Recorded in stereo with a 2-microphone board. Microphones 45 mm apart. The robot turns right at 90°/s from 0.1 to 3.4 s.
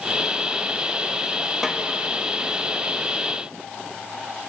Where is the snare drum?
10° right (ahead or behind), 2.5 m; by 1.8 s 5° left (ahead or behind), 2.5 m.